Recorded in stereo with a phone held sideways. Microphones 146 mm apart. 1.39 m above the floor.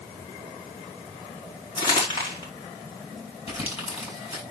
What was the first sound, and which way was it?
Crumpling, 30° left (ahead or behind).